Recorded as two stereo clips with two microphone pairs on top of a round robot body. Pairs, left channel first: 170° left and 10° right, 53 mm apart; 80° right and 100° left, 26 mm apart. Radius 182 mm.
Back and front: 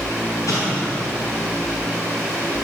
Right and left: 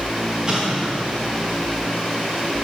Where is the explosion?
165° left, 5 m.